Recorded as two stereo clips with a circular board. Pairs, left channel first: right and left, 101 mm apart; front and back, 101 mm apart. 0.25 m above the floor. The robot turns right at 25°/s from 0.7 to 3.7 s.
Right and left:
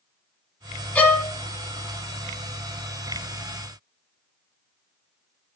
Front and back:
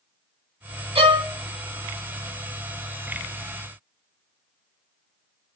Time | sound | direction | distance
0.9 | a violin | 165° right | 0.6 m